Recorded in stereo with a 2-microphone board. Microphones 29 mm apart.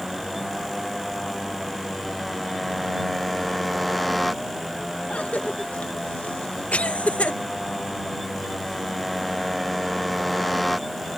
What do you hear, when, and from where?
0.0 s a motorcycle: 5° left (ahead or behind)
5.1 s a cough: 55° left (ahead or behind)